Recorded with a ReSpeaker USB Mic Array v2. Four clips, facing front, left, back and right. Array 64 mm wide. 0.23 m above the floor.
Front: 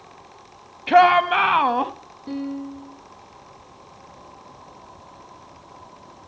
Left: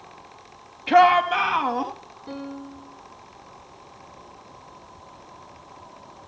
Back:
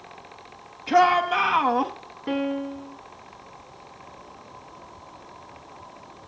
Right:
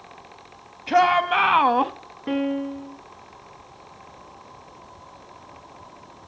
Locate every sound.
0.9 s a shout: 35° left, 1.1 m; by 1.9 s 75° right, 1.3 m
2.3 s a piano: 125° right, 1.2 m